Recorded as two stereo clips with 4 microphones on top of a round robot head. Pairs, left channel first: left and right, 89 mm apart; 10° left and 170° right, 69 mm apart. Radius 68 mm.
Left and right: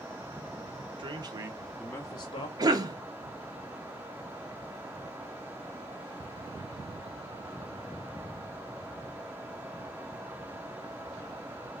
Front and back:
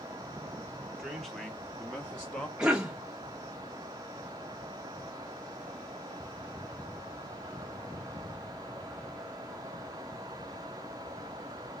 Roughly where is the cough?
Right.